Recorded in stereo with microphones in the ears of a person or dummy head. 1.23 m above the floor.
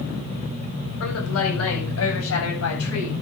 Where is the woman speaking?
85° left, 8 m.